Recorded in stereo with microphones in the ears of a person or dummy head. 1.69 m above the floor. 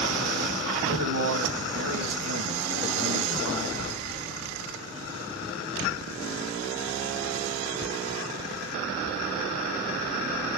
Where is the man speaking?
70° right (ahead or behind), 1.4 m.